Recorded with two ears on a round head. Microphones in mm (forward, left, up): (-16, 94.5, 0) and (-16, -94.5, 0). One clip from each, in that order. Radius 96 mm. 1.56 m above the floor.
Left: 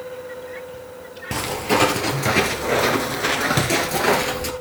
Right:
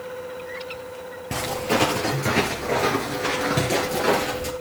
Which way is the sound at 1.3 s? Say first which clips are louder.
Left 3 dB; 10° left (ahead or behind).